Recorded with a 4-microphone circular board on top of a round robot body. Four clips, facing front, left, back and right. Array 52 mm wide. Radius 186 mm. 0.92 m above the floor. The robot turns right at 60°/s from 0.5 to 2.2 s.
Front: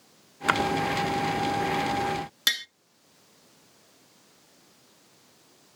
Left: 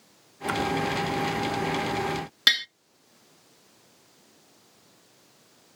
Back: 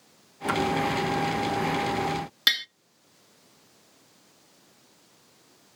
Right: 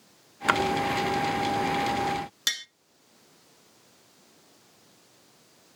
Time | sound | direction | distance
0.5 | a splash | 45° right | 1.1 m
2.5 | tapping | 110° left | 0.9 m